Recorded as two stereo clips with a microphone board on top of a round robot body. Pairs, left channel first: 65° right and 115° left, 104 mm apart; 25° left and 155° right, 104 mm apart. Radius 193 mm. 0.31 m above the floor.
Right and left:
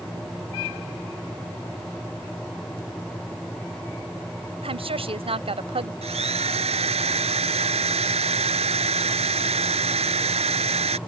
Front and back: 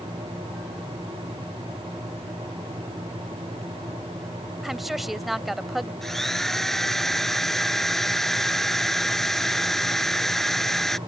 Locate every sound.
4.6 s a woman speaking: 115° left
6.0 s a drill: 110° left